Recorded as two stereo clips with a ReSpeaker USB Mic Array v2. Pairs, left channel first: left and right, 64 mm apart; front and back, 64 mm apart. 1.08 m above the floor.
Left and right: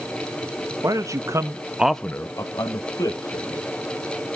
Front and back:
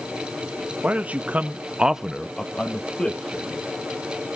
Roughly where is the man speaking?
Right.